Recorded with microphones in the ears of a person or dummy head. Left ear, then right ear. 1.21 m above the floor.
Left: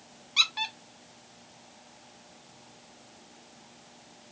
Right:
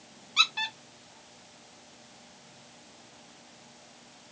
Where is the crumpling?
No crumpling in this recording.